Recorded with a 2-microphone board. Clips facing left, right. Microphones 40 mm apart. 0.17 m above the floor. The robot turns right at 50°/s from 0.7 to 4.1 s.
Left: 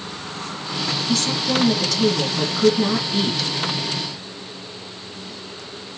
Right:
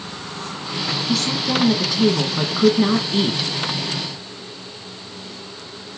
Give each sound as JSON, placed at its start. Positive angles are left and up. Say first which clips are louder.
{"t": 1.1, "sound": "a woman speaking", "louder": "even", "side_deg": -5, "distance_m": 1.6}